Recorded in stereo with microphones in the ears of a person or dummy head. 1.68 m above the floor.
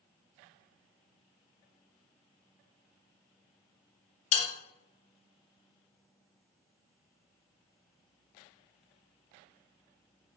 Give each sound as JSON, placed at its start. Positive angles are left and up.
{"t": 4.3, "sound": "a bell", "side_deg": 85, "distance_m": 0.6}